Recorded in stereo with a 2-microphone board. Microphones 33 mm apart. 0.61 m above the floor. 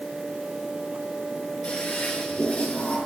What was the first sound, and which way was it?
A toilet flushing, 35° left (ahead or behind).